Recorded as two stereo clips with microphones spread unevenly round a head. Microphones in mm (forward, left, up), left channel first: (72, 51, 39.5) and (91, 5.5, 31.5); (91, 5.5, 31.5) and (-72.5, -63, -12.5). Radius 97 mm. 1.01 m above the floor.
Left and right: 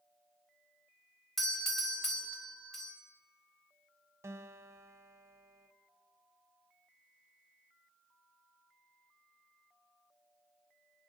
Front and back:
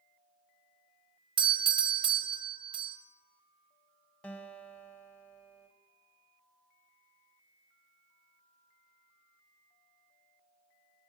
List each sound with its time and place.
1.4 s a doorbell: 155° right, 0.8 m
4.2 s a guitar: 65° right, 0.8 m